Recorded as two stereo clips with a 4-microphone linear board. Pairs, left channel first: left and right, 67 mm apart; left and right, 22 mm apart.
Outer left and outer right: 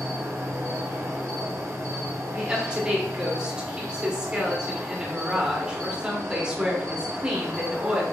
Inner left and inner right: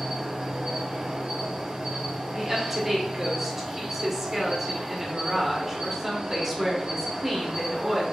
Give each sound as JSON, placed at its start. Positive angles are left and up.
{"t": 0.0, "sound": "an insect", "side_deg": -50, "distance_m": 0.8}
{"t": 2.3, "sound": "a woman speaking", "side_deg": -15, "distance_m": 1.0}